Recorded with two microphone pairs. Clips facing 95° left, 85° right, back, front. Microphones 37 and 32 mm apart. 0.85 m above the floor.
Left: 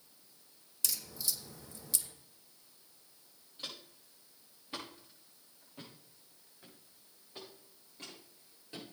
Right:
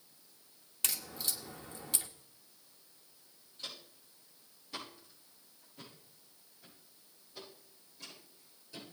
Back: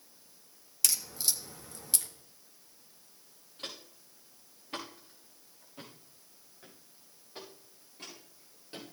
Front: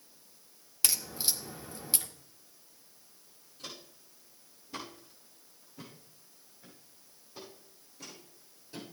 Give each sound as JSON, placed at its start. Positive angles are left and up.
{"t": 0.8, "sound": "a crack", "azimuth_deg": -60, "distance_m": 1.3}
{"t": 3.6, "sound": "footsteps", "azimuth_deg": 160, "distance_m": 5.0}